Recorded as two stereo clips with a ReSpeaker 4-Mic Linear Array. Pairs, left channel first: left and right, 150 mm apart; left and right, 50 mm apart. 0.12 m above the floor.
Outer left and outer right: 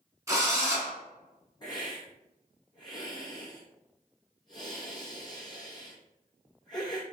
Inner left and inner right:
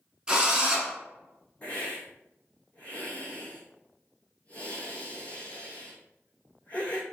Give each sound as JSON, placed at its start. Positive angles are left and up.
{"t": 0.3, "sound": "a drill", "side_deg": -20, "distance_m": 1.0}
{"t": 1.6, "sound": "a hiss", "side_deg": 30, "distance_m": 0.9}